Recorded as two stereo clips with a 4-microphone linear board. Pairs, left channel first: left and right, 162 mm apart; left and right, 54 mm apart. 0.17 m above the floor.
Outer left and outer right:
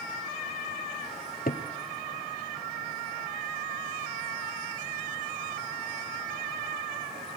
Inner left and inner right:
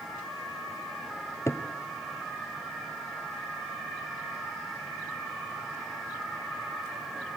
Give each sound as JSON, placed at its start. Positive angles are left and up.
{"t": 1.5, "sound": "a cupboard door", "side_deg": 60, "distance_m": 1.1}